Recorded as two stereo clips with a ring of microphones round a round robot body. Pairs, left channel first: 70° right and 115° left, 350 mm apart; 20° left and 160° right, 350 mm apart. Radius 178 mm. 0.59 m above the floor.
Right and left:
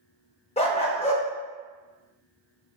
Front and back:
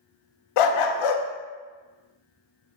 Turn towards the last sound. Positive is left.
turn(degrees=5)